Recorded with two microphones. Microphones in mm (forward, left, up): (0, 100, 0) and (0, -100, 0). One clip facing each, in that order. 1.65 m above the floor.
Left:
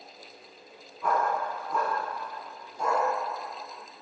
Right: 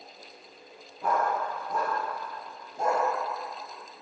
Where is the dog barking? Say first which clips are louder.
Even; 40° right (ahead or behind), 5.5 m; by 3.1 s 50° right (ahead or behind), 4.5 m.